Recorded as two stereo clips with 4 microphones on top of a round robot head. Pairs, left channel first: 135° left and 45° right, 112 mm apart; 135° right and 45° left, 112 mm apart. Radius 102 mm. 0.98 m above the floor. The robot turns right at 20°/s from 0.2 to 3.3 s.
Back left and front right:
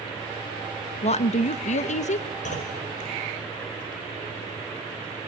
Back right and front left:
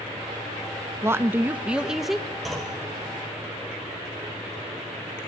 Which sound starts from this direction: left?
A woman speaking, at 1.0 s.